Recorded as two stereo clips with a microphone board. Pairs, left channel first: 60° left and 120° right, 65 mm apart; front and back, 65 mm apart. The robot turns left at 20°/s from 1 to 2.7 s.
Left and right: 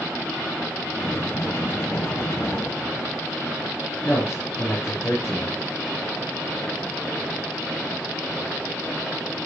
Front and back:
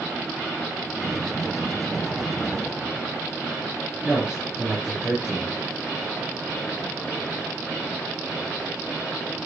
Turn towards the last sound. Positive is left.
turn(degrees=105)